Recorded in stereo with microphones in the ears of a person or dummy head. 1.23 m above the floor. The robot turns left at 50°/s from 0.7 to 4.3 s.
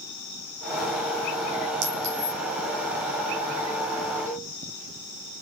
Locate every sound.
1.8 s a clink: 70° right (ahead or behind), 2.5 m; by 2.4 s 40° right (ahead or behind), 2.5 m
4.3 s a cowbell: 15° left (ahead or behind), 2.5 m; by 4.5 s 20° left (ahead or behind), 2.5 m